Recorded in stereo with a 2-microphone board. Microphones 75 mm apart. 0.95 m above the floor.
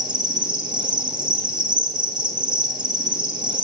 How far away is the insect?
About 0.8 m.